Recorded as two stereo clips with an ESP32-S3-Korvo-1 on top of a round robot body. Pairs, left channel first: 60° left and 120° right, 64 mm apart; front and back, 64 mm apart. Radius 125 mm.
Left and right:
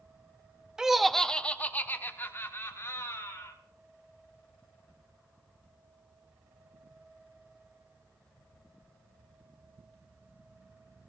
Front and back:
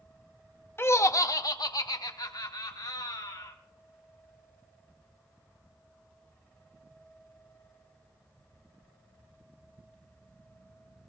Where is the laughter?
45° right, 0.8 m; by 3.5 s 15° left, 2.5 m.